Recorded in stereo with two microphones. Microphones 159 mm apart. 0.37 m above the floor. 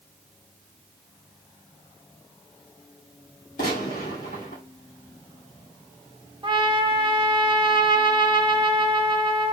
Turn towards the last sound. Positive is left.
turn(degrees=-30)  # may be behind; listen again after turning